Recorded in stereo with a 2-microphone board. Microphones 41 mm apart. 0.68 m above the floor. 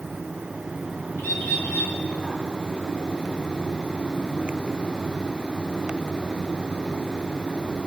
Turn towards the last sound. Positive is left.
turn(degrees=85)